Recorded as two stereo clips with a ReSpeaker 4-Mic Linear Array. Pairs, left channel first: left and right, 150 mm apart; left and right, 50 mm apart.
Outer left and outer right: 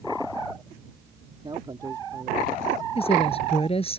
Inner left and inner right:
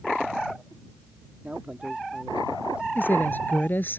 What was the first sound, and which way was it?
A man speaking, 35° right (ahead or behind).